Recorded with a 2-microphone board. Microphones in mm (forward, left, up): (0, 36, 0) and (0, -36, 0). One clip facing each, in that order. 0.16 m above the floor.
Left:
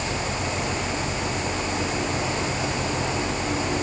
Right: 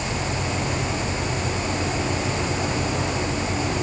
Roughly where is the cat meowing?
I don't hear a cat meowing.